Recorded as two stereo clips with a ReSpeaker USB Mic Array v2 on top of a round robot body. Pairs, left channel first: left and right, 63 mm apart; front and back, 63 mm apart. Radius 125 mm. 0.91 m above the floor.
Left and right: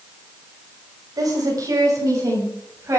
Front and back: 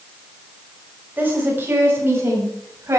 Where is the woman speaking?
120° right, 6.5 m; by 3.0 s 135° right, 7.5 m.